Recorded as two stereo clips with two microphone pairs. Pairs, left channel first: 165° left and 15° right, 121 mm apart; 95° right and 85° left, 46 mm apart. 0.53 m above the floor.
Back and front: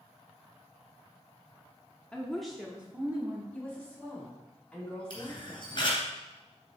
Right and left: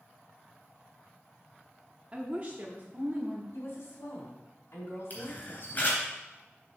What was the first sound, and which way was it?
A woman speaking, 95° left.